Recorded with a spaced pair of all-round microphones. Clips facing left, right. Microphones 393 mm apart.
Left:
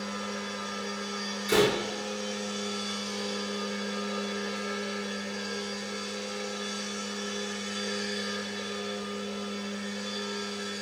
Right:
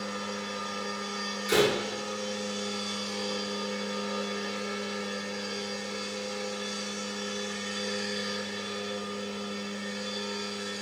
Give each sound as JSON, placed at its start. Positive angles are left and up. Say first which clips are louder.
{"t": 0.0, "sound": "a machine running", "louder": "even", "side_deg": -10, "distance_m": 1.0}
{"t": 1.5, "sound": "a door slam", "louder": "left 1 dB", "side_deg": 5, "distance_m": 1.5}